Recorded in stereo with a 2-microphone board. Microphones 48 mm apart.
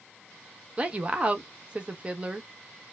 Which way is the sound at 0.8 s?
25° right (ahead or behind).